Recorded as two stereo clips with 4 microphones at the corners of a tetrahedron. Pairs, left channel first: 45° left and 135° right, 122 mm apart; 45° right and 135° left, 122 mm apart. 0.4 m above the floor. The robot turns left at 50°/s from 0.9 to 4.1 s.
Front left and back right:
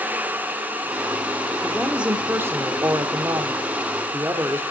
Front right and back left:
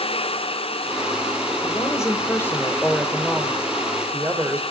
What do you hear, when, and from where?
1.6 s a woman speaking: 45° right, 1.0 m; by 4.6 s 170° right, 1.0 m